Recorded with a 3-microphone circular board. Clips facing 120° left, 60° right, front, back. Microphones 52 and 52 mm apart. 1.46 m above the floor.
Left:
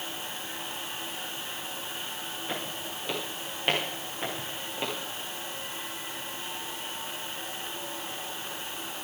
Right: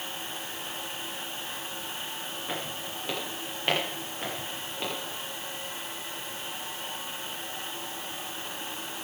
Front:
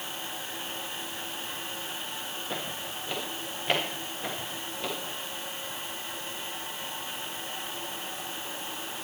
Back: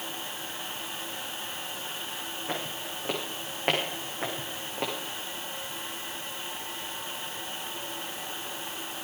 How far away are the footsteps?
About 8.5 m.